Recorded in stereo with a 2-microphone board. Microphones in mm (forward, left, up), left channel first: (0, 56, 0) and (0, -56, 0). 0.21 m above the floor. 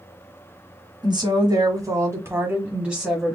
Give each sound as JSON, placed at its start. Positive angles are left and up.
{"t": 1.0, "sound": "a woman speaking", "side_deg": -45, "distance_m": 1.8}